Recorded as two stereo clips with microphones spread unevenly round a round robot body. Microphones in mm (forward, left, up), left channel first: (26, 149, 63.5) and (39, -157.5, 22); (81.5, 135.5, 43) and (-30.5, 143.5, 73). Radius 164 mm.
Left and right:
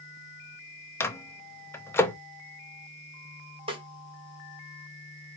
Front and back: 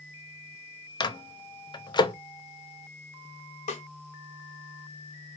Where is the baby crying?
I don't hear a baby crying.